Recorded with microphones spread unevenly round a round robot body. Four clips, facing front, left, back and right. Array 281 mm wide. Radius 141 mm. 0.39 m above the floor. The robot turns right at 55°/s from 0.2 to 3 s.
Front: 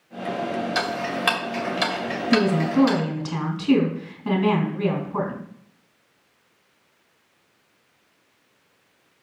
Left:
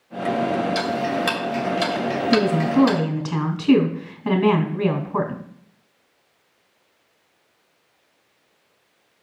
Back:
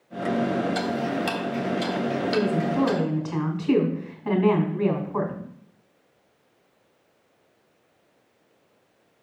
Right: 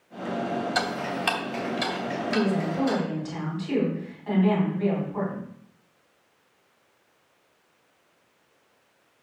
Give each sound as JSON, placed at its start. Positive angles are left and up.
{"t": 0.8, "sound": "ticking", "azimuth_deg": -30, "distance_m": 2.5}
{"t": 2.3, "sound": "a woman speaking", "azimuth_deg": 50, "distance_m": 2.5}